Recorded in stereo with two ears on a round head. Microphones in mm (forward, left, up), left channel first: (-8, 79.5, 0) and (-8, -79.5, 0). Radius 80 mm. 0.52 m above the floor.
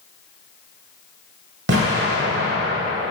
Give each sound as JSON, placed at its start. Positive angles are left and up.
{"t": 1.7, "sound": "an explosion", "side_deg": -80, "distance_m": 1.5}